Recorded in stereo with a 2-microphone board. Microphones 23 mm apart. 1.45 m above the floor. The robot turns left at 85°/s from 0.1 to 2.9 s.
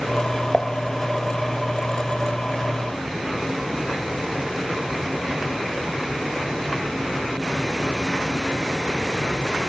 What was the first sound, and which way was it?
Dishes clattering, 20° left (ahead or behind).